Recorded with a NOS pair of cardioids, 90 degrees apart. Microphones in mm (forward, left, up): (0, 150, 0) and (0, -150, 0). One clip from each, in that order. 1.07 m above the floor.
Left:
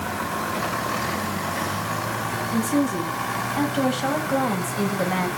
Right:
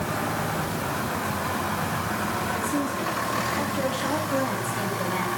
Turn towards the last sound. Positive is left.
turn(degrees=70)